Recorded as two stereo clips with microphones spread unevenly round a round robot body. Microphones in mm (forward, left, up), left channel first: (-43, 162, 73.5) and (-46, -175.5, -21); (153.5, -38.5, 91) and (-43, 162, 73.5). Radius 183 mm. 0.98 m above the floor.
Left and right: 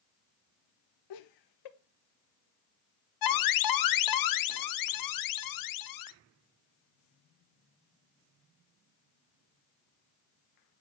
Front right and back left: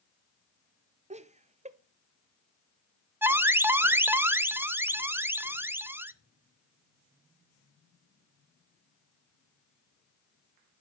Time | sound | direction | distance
1.1 | laughter | 80° left | 1.2 m
3.2 | an alarm | 50° left | 0.8 m